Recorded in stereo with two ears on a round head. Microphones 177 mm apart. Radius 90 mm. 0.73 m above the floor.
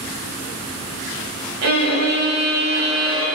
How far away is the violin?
About 2 m.